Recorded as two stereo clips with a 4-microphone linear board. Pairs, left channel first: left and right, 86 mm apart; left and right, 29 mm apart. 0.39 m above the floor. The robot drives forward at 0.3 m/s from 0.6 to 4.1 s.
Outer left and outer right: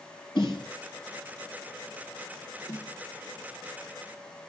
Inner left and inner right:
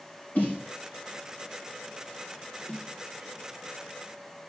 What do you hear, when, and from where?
0.3 s a snare drum: 65° left (ahead or behind), 5.5 m
2.7 s a snare drum: 35° left (ahead or behind), 0.8 m